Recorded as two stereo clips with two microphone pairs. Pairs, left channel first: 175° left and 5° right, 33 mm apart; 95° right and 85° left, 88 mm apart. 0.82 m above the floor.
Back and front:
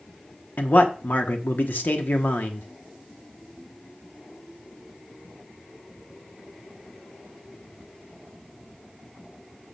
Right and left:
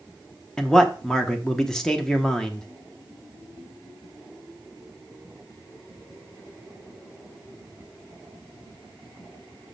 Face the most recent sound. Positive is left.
turn(degrees=180)